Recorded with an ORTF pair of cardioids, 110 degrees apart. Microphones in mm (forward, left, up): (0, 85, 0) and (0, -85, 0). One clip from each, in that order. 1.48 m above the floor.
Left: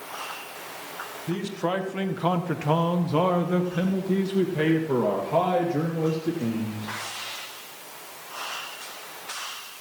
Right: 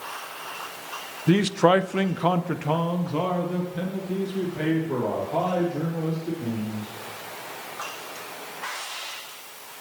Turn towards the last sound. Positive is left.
turn(degrees=50)